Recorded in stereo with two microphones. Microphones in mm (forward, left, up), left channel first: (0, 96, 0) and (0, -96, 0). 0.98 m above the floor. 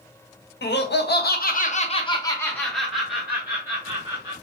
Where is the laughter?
65° left (ahead or behind), 0.9 m; by 4.3 s 20° right (ahead or behind), 1.7 m.